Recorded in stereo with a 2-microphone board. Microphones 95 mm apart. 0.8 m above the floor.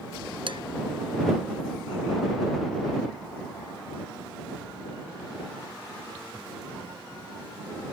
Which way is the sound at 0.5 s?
65° right (ahead or behind).